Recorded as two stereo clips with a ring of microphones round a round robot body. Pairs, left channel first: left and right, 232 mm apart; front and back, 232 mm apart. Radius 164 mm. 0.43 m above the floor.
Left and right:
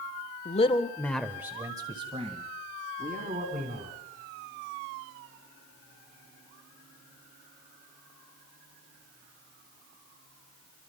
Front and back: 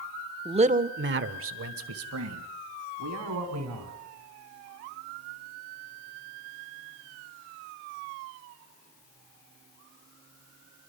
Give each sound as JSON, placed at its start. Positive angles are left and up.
{"t": 0.5, "sound": "a man speaking", "azimuth_deg": 125, "distance_m": 0.9}